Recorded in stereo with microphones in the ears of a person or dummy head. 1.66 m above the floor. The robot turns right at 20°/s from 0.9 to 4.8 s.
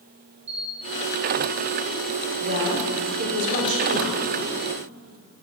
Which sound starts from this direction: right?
A camera shutter, at 0.5 s.